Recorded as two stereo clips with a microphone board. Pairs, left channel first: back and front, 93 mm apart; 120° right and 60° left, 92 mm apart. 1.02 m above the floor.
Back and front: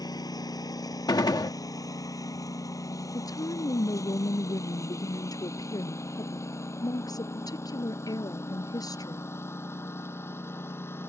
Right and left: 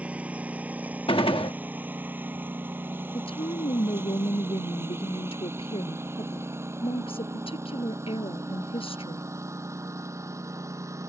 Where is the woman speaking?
130° right.